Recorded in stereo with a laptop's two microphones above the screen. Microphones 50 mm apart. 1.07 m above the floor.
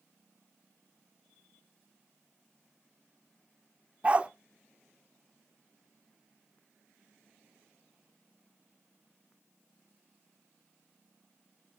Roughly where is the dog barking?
Right.